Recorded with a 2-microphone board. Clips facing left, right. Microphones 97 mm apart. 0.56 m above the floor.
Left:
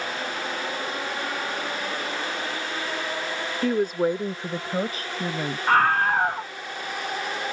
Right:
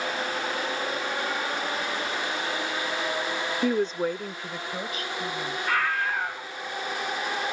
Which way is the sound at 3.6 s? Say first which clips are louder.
Left 3 dB; 5° right (ahead or behind).